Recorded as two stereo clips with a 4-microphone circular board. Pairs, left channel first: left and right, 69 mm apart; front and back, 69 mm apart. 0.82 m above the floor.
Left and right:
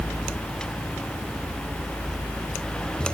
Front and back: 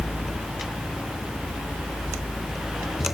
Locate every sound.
Only background noise.